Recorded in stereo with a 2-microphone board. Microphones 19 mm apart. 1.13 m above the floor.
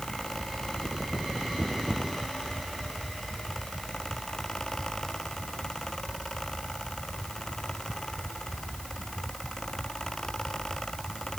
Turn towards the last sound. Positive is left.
No sound to turn to.